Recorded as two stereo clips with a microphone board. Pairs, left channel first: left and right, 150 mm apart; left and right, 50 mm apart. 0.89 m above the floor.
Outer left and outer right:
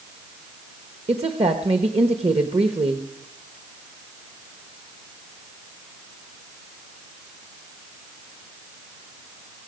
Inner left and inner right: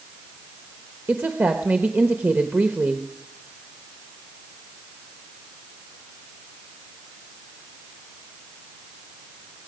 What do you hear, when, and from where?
1.1 s a woman speaking: 40° right (ahead or behind), 1.1 m